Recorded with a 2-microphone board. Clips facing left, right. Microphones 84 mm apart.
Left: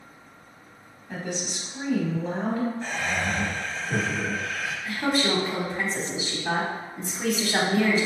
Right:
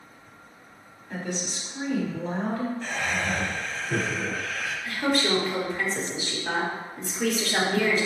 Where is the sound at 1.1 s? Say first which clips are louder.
Even; 10° left (ahead or behind), 1.5 m.